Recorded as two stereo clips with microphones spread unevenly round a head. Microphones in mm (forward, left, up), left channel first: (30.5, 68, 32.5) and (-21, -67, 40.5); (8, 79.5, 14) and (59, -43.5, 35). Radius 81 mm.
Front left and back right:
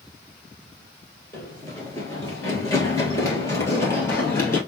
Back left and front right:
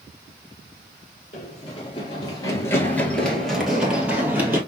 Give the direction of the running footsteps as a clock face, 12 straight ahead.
7 o'clock.